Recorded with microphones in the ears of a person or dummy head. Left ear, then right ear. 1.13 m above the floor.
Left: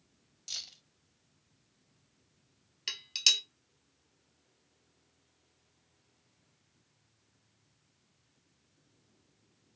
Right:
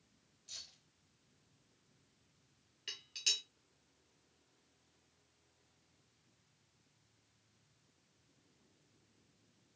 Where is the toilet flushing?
I don't hear a toilet flushing.